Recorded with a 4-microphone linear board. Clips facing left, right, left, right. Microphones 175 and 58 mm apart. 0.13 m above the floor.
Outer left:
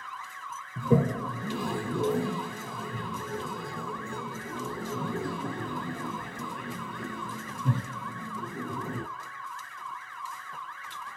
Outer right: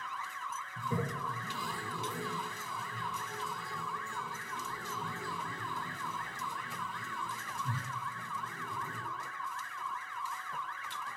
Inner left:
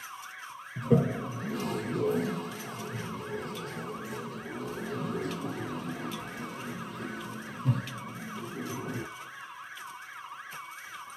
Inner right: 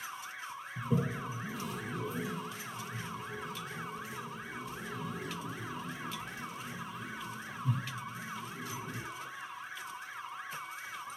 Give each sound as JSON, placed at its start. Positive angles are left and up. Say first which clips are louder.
{"t": 0.8, "sound": "a toilet flushing", "louder": "outer left 12 dB, inner left 8 dB", "side_deg": 70, "distance_m": 0.8}